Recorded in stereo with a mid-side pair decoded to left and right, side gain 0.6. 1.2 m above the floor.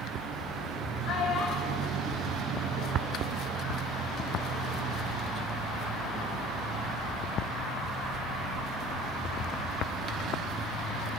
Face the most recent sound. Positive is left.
turn(degrees=55)